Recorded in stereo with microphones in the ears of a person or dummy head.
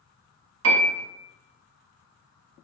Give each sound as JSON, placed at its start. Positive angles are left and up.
{"t": 0.6, "sound": "a piano", "side_deg": -85, "distance_m": 0.9}